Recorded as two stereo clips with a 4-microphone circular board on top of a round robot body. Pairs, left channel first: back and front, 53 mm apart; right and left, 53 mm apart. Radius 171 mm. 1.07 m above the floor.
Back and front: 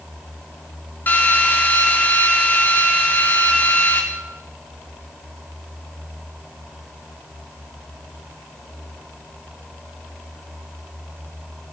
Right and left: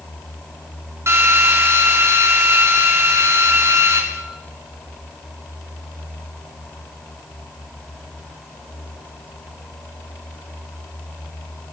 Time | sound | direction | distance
1.1 | a drill | 125° left | 4 m